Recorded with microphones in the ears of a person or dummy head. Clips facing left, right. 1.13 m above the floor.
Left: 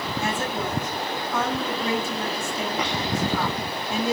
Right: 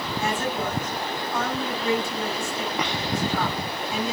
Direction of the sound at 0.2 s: 85° left.